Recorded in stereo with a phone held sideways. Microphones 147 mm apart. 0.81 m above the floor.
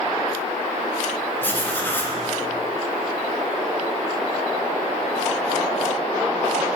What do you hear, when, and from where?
1.4 s writing: 15° left (ahead or behind), 0.7 m